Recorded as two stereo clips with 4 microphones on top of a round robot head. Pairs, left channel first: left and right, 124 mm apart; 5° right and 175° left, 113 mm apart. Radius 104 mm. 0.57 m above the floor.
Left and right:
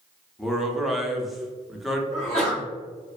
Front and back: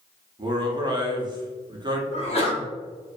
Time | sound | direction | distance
0.4 | a man speaking | straight behind | 0.7 m
2.1 | a sneeze | 5° left | 1.5 m